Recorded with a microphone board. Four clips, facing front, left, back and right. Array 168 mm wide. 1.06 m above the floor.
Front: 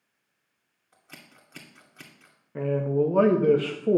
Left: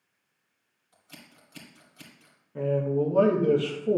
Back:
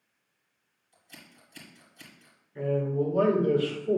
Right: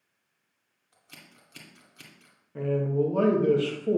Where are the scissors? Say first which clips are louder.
Left 2 dB, front 2 dB; straight ahead, 2 m.